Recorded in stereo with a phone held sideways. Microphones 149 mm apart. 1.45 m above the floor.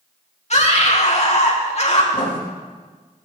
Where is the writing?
70° left (ahead or behind), 2.5 m.